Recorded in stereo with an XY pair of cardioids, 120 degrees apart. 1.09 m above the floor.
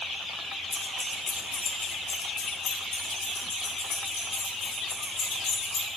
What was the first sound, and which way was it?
Keys jangling, 10° left.